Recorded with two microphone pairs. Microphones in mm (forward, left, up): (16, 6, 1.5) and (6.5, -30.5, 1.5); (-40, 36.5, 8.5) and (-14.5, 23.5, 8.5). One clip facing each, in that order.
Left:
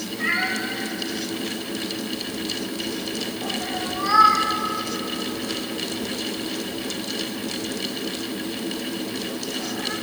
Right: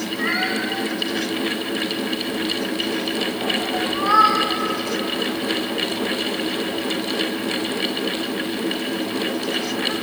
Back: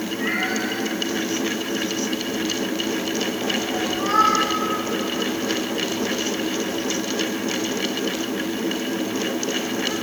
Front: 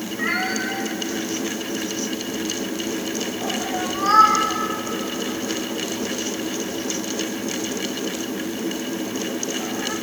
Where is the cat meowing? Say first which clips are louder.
Right 1 dB, front 1 dB; 70° right, 3.5 m.